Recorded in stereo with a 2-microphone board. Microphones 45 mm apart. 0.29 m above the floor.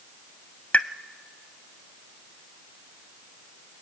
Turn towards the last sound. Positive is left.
turn(degrees=30)  # may be behind; listen again after turning